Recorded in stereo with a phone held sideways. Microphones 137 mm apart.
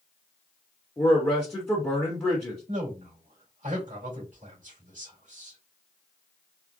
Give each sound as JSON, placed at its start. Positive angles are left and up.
{"t": 1.0, "sound": "a man speaking", "side_deg": 15, "distance_m": 1.2}
{"t": 2.7, "sound": "a man speaking", "side_deg": -70, "distance_m": 2.0}